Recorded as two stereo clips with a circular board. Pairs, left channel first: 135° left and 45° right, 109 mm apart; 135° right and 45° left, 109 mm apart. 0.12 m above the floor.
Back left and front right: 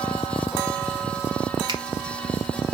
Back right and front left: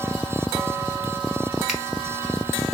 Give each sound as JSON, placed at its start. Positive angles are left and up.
{"t": 1.7, "sound": "a finger snap", "azimuth_deg": -40, "distance_m": 1.8}